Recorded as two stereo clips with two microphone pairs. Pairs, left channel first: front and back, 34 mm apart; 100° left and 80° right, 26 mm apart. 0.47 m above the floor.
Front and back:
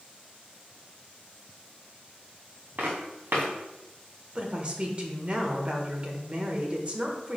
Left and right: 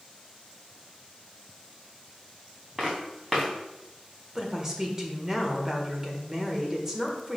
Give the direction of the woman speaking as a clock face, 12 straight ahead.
5 o'clock.